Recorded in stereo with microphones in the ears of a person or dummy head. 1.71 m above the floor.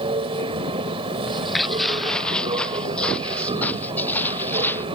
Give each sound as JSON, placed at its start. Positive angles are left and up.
{"t": 0.0, "sound": "a machine running", "side_deg": -25}
{"t": 1.3, "sound": "footsteps", "side_deg": -5}